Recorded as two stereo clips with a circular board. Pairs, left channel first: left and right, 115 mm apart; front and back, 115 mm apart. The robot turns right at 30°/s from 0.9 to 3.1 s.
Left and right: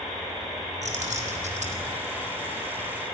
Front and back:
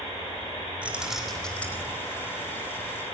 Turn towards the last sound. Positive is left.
turn(degrees=-35)